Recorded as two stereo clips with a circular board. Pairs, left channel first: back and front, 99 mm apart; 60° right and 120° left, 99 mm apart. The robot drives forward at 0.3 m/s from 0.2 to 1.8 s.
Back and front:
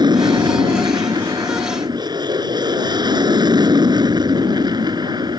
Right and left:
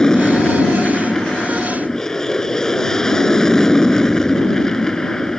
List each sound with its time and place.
0.0 s an aircraft: 20° left; by 5.4 s 25° left